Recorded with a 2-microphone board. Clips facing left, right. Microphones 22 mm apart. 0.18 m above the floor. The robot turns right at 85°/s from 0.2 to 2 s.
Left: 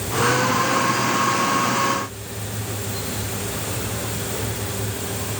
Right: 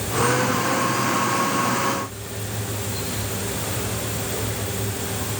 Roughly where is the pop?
No pop in this recording.